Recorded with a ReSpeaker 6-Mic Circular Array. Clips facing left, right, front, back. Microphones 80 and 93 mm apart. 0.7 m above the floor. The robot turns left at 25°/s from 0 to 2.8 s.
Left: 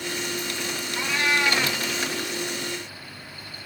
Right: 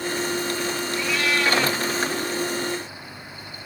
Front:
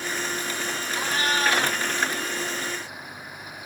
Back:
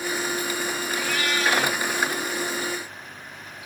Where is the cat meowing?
45° left, 0.6 m; by 1.8 s 20° left, 0.6 m.